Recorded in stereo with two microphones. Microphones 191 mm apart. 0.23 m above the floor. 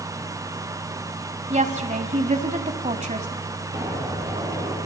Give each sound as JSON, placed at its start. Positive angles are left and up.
{"t": 1.5, "sound": "a woman speaking", "side_deg": -40, "distance_m": 1.3}
{"t": 3.7, "sound": "an explosion", "side_deg": -30, "distance_m": 6.0}